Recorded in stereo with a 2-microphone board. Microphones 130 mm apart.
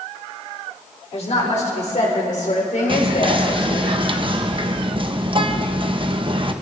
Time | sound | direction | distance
1.1 | a woman speaking | 55° left (ahead or behind) | 4 m
2.9 | whispering | 40° right (ahead or behind) | 1.1 m